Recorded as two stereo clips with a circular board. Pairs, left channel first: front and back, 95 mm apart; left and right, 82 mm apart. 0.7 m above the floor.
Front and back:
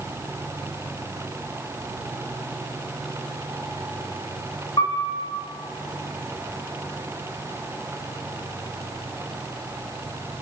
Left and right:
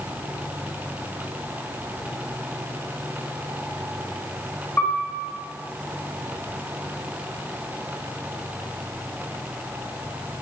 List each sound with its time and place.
4.8 s a piano: 35° left, 0.8 m